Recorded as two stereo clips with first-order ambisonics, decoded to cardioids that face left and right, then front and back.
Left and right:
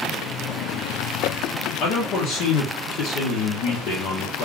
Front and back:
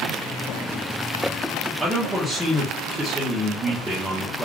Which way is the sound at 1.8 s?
95° left.